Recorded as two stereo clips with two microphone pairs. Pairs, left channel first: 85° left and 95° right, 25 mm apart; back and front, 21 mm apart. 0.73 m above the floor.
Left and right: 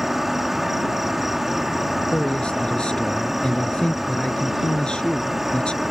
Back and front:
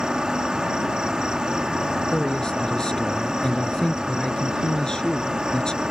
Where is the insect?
20° right.